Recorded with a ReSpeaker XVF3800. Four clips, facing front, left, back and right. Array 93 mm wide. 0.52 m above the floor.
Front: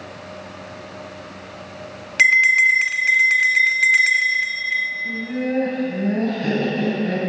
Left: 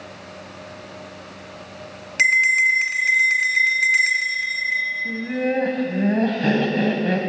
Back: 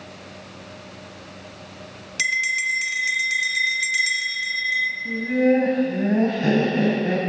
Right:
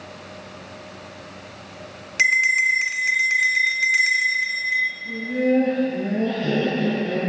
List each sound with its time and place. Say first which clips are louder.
2.2 s a bell: left 2 dB, front 9 dB; 5° right, 1.1 m
5.0 s laughter: right 5 dB, back 5 dB; 115° left, 3.5 m